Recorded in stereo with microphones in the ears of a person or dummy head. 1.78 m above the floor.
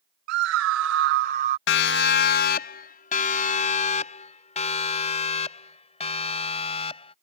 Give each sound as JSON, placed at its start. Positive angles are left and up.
{"t": 0.3, "sound": "a scream", "side_deg": -70}
{"t": 1.7, "sound": "a siren", "side_deg": 70}